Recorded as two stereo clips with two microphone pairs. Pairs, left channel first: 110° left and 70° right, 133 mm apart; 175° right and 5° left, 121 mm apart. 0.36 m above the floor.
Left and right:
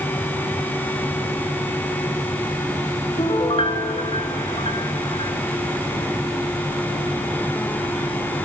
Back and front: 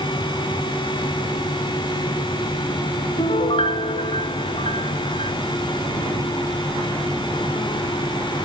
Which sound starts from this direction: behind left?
A piano, at 3.2 s.